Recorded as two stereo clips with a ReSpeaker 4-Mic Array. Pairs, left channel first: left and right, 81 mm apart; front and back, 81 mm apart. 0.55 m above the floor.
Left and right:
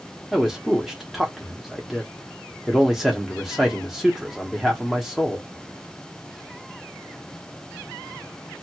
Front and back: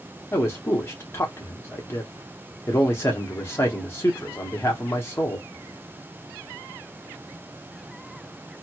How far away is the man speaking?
About 0.8 m.